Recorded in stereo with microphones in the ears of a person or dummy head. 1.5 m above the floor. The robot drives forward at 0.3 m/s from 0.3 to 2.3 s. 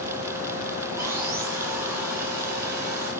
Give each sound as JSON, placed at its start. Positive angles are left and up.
{"t": 1.0, "sound": "sawing", "side_deg": -15, "distance_m": 3.5}